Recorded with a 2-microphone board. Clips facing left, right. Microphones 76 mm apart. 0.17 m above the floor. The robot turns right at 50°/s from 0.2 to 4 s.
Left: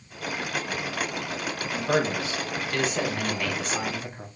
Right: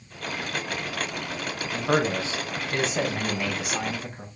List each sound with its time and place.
1.7 s a man speaking: 25° right (ahead or behind), 1.4 m; by 4.3 s centre (ahead or behind), 1.4 m